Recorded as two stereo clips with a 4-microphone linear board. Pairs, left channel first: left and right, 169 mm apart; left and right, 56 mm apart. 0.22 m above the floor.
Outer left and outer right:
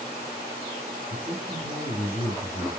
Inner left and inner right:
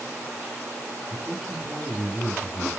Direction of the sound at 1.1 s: Centre (ahead or behind).